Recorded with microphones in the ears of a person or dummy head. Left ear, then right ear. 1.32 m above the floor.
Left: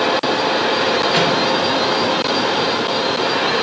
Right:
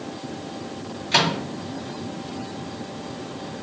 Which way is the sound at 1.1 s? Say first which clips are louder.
Right 2 dB; 25° right (ahead or behind).